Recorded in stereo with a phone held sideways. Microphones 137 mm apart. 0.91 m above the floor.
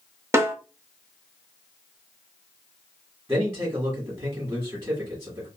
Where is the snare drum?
20° right (ahead or behind), 0.6 m.